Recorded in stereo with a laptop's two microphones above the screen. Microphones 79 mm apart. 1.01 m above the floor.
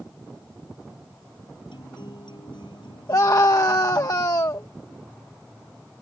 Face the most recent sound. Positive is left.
turn(degrees=50)  # may be behind; listen again after turning